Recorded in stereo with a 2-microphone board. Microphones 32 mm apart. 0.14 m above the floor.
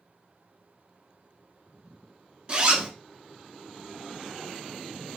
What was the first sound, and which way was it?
A zipper, 30° right (ahead or behind).